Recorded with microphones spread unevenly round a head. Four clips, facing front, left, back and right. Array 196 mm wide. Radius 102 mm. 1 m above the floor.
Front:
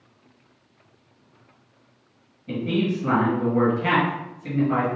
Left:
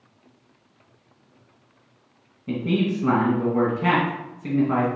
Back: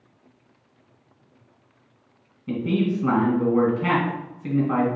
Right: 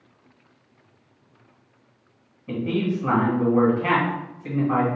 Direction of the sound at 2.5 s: 130° left.